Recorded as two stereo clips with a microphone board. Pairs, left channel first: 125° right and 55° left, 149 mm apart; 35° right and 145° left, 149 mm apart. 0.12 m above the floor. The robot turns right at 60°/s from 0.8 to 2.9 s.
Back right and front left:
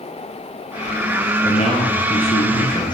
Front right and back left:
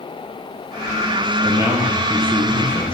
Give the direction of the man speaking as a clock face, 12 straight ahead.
5 o'clock.